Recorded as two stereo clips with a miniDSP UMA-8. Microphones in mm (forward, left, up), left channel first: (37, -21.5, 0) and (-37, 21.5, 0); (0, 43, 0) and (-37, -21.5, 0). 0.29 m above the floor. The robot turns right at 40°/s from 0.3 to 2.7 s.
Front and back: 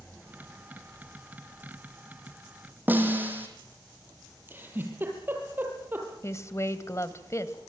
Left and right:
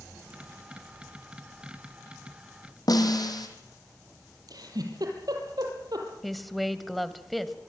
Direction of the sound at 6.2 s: 30° right.